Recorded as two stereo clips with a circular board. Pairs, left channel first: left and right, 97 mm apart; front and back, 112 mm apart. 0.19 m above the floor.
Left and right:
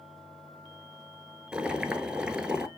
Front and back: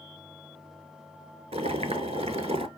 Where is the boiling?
170° right, 0.7 m.